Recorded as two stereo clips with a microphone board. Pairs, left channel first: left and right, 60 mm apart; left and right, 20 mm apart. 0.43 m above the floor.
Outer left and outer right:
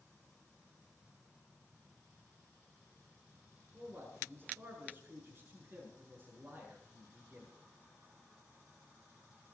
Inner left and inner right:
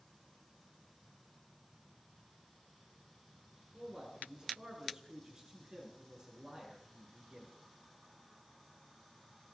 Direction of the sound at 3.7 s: 40° right (ahead or behind).